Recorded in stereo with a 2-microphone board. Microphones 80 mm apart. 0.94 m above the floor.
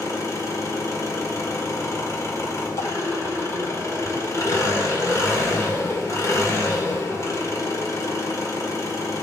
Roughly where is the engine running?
Left.